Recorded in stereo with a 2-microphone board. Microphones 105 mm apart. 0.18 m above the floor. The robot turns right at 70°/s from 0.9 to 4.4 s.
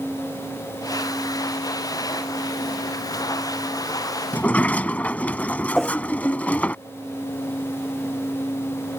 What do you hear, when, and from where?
4.3 s a sliding door: 15° left (ahead or behind)
5.8 s a whoosh: centre (ahead or behind)